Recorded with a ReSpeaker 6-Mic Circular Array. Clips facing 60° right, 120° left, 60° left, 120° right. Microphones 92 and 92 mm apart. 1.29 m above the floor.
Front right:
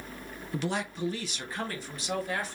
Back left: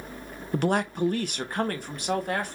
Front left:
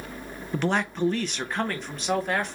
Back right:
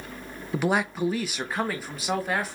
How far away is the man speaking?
About 0.6 m.